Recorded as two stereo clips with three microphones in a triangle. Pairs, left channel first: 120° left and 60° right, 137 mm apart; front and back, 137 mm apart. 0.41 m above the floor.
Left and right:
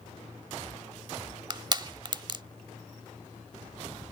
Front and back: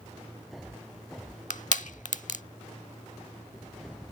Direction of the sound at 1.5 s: 10° right.